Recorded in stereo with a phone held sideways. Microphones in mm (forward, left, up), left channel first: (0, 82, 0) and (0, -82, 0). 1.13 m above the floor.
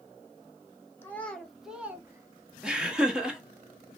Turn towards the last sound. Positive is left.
turn(degrees=-5)  # may be behind; listen again after turning